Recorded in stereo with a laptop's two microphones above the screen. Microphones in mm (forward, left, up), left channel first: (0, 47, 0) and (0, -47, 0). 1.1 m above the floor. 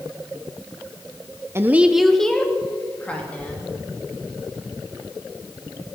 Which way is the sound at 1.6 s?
25° right (ahead or behind).